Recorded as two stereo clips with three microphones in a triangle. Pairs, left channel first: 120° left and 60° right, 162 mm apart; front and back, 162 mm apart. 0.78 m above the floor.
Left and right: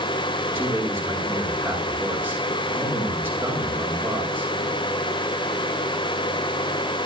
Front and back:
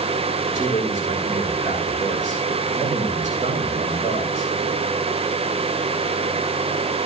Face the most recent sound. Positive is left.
turn(degrees=-135)